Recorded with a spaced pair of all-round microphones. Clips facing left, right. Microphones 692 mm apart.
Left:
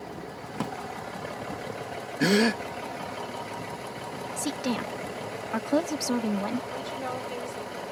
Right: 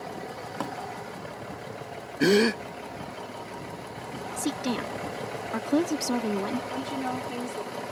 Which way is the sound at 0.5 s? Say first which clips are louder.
Left 3 dB; 50° left (ahead or behind).